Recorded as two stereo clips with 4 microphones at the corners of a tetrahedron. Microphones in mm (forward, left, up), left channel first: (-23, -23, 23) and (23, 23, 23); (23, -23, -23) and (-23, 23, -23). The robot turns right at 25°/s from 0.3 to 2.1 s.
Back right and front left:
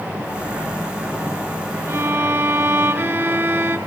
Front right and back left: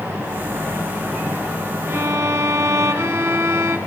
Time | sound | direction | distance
1.9 | a violin | 85° left | 0.7 m